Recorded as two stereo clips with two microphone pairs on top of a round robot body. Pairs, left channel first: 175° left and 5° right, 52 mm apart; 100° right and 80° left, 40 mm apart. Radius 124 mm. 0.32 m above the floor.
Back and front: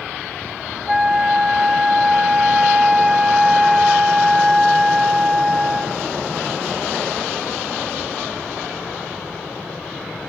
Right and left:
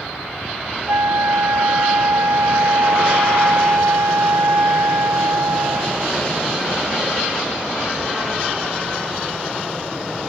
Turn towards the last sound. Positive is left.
turn(degrees=75)